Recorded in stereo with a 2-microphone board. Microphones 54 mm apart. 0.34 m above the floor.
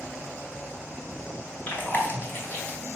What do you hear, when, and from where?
1.7 s chewing: 40° left (ahead or behind), 2.0 m